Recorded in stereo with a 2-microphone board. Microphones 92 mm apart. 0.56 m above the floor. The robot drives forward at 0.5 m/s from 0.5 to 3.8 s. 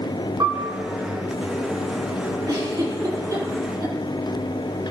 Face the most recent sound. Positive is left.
turn(degrees=-35)  # may be behind; listen again after turning